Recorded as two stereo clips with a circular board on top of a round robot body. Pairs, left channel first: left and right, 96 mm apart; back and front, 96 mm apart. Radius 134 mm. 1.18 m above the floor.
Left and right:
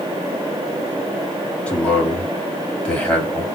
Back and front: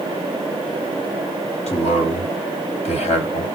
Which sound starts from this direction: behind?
A man speaking, at 1.7 s.